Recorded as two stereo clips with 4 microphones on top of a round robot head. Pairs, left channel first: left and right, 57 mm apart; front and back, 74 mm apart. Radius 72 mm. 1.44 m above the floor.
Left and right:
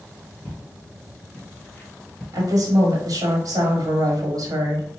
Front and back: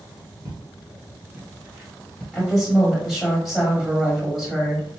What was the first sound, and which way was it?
Footsteps, 135° left.